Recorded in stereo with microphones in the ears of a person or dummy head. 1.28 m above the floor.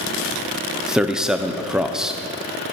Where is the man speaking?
5° right (ahead or behind), 0.5 m.